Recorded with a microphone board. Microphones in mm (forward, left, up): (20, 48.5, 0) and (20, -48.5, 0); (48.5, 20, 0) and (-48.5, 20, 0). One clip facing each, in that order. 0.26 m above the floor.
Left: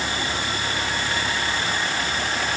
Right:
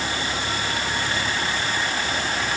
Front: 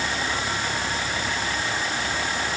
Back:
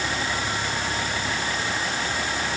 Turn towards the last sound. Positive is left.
No sound to turn to.